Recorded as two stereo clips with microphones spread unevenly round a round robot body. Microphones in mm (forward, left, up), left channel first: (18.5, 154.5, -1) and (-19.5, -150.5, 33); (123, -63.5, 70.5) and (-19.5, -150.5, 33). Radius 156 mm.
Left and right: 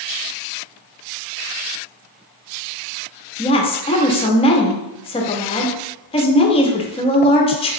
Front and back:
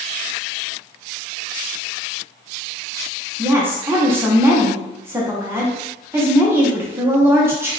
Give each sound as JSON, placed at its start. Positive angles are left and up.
{"t": 3.4, "sound": "a woman speaking", "azimuth_deg": 145, "distance_m": 0.7}